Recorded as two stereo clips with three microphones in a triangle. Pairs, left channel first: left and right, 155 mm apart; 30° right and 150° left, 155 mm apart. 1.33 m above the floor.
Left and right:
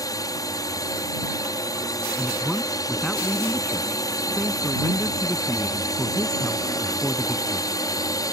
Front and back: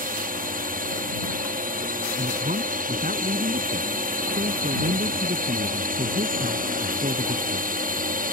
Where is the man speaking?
175° left.